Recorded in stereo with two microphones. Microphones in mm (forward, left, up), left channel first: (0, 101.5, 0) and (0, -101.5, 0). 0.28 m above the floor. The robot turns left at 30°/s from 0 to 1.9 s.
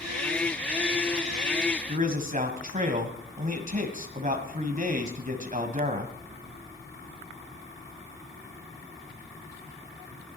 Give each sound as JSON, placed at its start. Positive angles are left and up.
{"t": 1.9, "sound": "a man speaking", "side_deg": -40, "distance_m": 1.6}